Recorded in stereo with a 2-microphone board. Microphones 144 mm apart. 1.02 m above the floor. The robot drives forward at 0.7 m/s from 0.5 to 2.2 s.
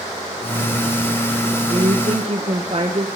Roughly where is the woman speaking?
Right.